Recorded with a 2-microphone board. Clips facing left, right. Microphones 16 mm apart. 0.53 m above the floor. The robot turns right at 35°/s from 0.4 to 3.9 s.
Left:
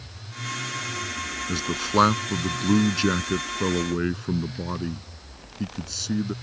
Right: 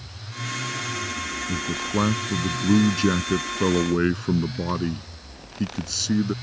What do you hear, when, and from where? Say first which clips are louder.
1.5 s a man speaking: left 3 dB; 115° left; by 6.3 s 165° right